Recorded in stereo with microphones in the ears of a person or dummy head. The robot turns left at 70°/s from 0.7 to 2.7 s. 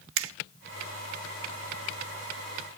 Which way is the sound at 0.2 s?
65° right (ahead or behind).